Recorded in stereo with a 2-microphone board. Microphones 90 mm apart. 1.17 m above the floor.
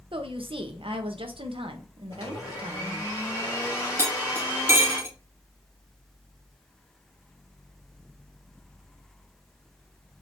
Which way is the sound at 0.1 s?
75° right (ahead or behind).